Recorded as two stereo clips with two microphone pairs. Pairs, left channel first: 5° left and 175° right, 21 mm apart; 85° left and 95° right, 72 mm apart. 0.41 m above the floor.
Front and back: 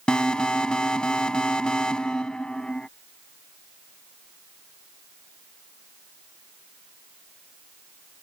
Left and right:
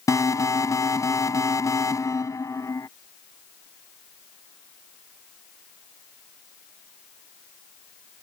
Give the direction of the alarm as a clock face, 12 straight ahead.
10 o'clock.